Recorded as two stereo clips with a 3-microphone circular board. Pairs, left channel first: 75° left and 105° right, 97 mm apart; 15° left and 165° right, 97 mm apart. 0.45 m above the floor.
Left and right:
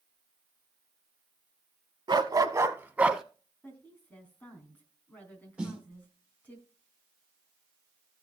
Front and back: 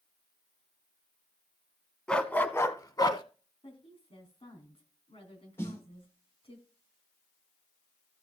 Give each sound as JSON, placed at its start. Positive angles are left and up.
{"t": 2.1, "sound": "a dog barking", "azimuth_deg": -65, "distance_m": 0.8}
{"t": 3.6, "sound": "a woman speaking", "azimuth_deg": 5, "distance_m": 3.5}
{"t": 5.6, "sound": "a snare drum", "azimuth_deg": -30, "distance_m": 1.6}